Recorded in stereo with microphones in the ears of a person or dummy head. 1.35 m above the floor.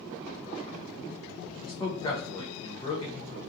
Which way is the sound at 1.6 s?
15° left (ahead or behind).